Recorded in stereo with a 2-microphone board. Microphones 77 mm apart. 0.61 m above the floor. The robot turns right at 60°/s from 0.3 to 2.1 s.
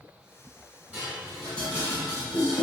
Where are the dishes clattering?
20° right (ahead or behind), 1.6 m; by 2.6 s 50° left (ahead or behind), 1.6 m.